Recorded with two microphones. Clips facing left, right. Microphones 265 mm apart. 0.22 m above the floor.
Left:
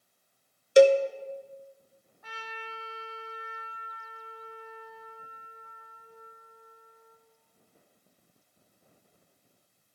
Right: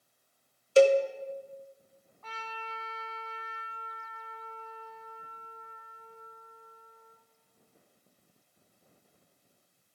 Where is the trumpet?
15° left (ahead or behind), 1.8 m.